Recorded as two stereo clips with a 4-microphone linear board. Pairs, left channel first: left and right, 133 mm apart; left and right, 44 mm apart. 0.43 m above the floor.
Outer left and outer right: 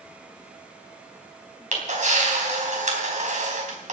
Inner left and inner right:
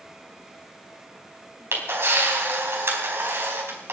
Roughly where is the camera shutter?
Right.